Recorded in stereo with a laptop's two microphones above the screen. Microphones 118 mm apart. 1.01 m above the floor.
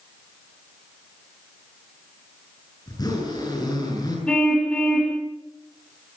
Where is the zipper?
35° left (ahead or behind), 8 m.